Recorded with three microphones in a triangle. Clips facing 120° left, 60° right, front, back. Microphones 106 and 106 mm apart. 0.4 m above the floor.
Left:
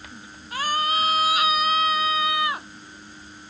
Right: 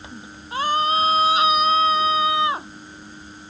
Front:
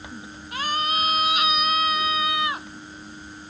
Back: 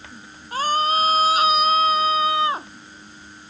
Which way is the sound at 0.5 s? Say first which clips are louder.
Right 4 dB, back 6 dB; 125° right.